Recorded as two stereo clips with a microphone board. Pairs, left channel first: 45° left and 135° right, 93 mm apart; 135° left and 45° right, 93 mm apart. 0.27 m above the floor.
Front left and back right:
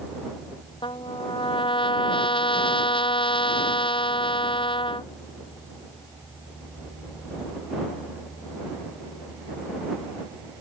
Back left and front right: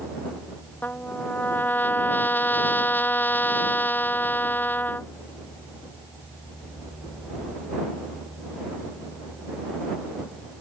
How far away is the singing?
No singing in this recording.